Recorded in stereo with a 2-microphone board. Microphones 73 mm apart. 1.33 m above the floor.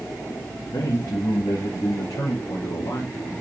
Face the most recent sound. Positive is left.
turn(degrees=50)  # may be behind; listen again after turning